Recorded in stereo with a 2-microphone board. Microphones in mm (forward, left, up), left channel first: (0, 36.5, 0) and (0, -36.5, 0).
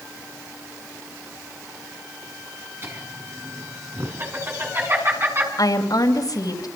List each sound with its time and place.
2.8 s laughter: 35° right (ahead or behind), 6.5 m
5.6 s a woman speaking: 65° left (ahead or behind), 3.5 m